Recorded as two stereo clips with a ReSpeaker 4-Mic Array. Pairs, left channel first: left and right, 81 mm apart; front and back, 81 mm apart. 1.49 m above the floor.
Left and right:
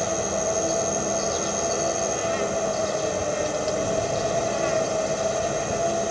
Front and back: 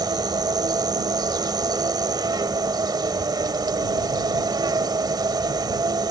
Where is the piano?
I don't hear a piano.